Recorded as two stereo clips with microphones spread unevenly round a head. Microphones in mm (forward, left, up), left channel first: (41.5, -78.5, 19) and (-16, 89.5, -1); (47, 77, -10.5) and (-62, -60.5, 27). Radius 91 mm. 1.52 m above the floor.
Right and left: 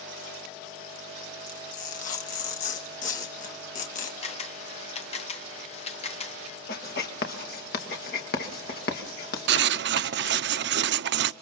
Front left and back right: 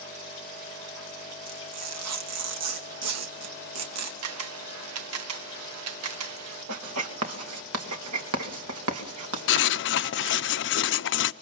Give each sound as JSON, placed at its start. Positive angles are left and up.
{"t": 1.5, "sound": "tearing paper", "azimuth_deg": -125, "distance_m": 2.5}
{"t": 4.2, "sound": "a camera shutter", "azimuth_deg": -130, "distance_m": 1.3}
{"t": 6.7, "sound": "writing", "azimuth_deg": -115, "distance_m": 2.5}
{"t": 9.5, "sound": "writing", "azimuth_deg": 75, "distance_m": 0.7}